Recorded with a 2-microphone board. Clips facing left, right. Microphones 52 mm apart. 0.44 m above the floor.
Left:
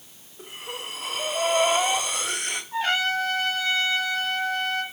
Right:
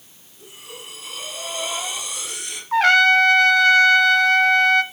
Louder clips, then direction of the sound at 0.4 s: Left 4 dB; 50° left (ahead or behind).